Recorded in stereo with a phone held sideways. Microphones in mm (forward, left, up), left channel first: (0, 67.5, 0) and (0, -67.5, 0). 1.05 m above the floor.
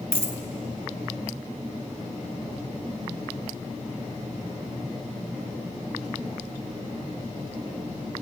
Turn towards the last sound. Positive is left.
turn(degrees=-50)  # may be behind; listen again after turning